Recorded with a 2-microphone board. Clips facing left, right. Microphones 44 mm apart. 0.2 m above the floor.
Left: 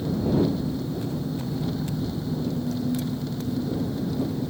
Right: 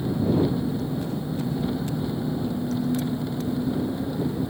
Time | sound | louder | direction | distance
0.0 | an engine running | right 1 dB | 20° right (ahead or behind) | ?